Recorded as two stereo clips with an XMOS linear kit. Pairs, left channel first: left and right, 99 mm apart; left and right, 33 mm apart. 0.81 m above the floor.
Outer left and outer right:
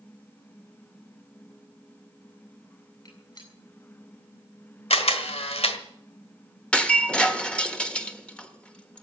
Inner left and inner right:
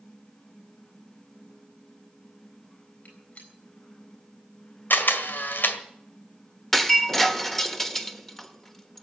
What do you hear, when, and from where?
3.0 s a gunshot: 50° left (ahead or behind), 7 m
4.9 s a camera shutter: 85° left, 1.7 m
6.7 s breaking glass: 10° left (ahead or behind), 1.4 m